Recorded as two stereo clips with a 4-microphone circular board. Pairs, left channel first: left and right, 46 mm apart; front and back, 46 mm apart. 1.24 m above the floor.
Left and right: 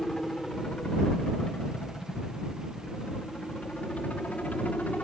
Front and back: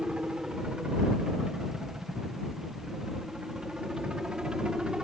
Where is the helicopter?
150° left; by 5.0 s 120° left.